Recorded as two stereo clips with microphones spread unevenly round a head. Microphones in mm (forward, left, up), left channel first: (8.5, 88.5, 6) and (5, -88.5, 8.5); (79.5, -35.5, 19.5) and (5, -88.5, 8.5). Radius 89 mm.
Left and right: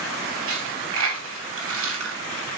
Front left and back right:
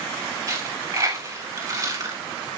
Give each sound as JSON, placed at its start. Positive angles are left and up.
{"t": 0.5, "sound": "a dropped coin", "azimuth_deg": -85, "distance_m": 3.5}